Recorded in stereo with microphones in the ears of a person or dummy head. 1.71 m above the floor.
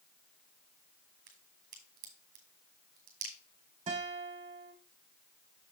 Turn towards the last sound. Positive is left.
turn(degrees=-30)  # may be behind; listen again after turning